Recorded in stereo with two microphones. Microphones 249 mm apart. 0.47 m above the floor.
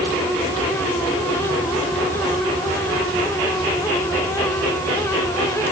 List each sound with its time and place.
Only background noise.